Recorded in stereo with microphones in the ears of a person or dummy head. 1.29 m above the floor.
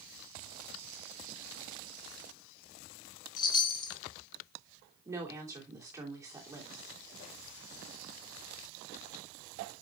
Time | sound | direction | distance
3.4 | a chime | 25° left (ahead or behind) | 0.6 m
5.0 | a woman speaking | 10° right (ahead or behind) | 3 m